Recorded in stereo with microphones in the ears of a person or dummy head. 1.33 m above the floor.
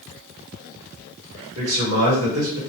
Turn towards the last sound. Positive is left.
turn(degrees=-65)  # may be behind; listen again after turning